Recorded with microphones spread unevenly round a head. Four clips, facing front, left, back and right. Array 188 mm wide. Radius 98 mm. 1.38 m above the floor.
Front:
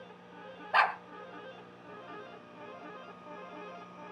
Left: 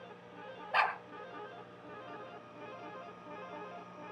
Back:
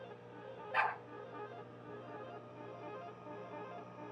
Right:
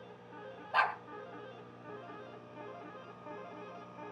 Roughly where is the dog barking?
Ahead.